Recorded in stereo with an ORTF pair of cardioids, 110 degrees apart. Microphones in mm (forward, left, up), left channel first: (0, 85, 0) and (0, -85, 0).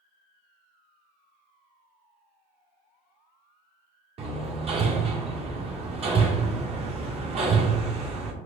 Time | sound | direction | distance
4.2 | hammering | 35° right | 1.0 m